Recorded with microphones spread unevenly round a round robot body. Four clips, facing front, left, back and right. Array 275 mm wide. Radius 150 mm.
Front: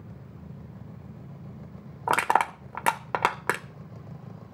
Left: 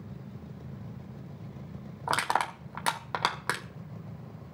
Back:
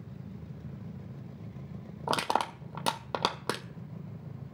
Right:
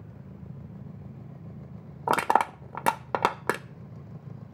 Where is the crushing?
75° right, 0.7 m.